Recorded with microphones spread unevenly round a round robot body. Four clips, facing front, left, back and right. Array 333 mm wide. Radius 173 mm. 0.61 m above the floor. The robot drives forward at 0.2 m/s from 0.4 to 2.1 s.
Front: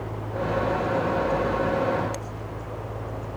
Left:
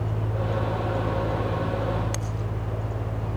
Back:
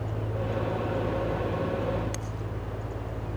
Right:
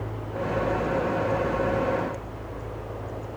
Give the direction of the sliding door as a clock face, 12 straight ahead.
No sliding door in this recording.